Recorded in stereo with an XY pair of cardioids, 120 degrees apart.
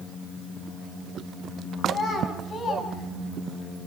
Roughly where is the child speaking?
Ahead left.